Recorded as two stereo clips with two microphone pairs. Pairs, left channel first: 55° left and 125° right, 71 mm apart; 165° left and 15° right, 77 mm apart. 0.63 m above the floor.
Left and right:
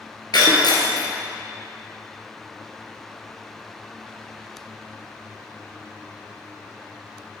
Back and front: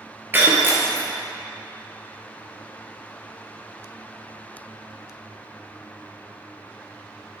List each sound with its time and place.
0.3 s breaking glass: 50° left, 2.0 m